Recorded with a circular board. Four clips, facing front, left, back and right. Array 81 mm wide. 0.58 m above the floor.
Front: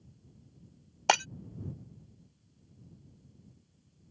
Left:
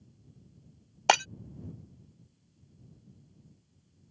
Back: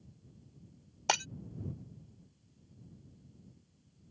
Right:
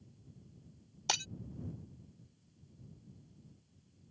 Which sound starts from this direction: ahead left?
Breaking glass, at 1.1 s.